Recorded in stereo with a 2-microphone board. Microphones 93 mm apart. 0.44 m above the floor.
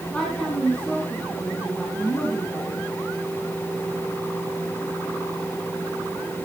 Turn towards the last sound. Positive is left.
turn(degrees=10)  # may be behind; listen again after turning